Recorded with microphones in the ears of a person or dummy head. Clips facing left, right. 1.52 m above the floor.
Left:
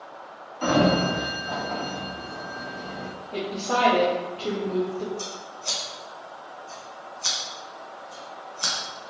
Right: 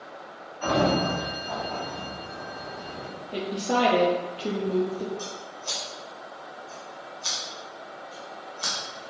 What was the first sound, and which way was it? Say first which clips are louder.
A sliding door: left 3 dB; 60° left (ahead or behind).